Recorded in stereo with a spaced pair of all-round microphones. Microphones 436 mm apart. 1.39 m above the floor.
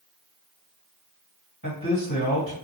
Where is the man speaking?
40° left (ahead or behind), 1.6 m.